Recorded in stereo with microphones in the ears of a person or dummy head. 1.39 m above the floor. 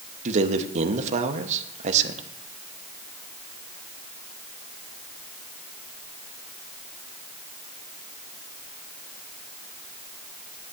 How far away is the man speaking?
About 1.0 m.